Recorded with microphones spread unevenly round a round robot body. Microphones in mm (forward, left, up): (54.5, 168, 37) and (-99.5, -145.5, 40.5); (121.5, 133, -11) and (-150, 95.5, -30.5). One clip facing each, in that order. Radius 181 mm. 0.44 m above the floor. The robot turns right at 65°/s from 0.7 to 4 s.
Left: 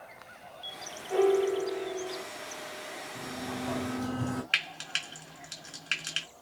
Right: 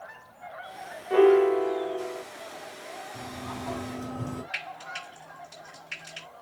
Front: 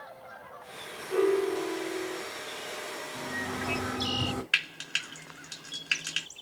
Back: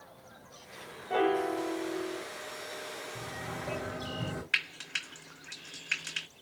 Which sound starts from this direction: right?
A sliding door, at 3.1 s.